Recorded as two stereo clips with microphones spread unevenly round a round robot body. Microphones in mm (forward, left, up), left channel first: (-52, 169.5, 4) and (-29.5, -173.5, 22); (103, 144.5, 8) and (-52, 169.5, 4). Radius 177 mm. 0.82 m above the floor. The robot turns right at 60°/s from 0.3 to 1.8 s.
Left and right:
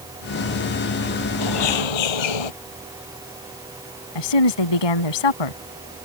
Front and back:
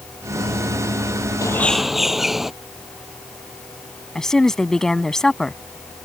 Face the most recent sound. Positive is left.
turn(degrees=75)